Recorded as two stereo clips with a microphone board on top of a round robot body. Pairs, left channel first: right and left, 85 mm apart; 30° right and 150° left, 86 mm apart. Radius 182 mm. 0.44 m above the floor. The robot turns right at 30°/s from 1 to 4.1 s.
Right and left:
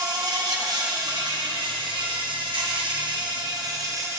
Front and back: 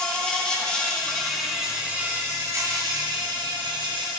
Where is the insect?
50° left, 1.5 m; by 4.2 s 145° left, 1.5 m.